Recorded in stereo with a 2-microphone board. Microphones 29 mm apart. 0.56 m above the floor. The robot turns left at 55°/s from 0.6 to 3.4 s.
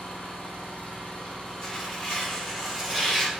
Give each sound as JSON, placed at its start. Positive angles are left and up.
{"t": 0.0, "sound": "an engine running", "azimuth_deg": 95, "distance_m": 0.9}
{"t": 1.6, "sound": "tearing paper", "side_deg": 25, "distance_m": 1.1}